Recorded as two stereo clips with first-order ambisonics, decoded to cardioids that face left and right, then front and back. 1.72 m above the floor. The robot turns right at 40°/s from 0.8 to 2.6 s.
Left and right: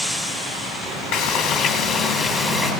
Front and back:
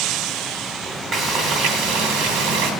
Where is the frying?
120° left, 3 m; by 2.7 s straight behind, 3 m.